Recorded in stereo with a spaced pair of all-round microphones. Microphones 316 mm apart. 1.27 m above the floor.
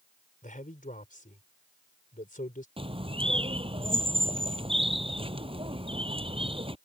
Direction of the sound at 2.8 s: 15° right (ahead or behind).